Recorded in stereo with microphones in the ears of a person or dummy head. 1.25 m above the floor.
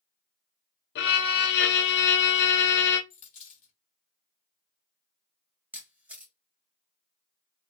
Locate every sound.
0.9 s a violin: 50° left (ahead or behind), 0.5 m
3.1 s a dropped coin: 35° left (ahead or behind), 1.1 m
5.7 s a camera shutter: 5° right (ahead or behind), 0.5 m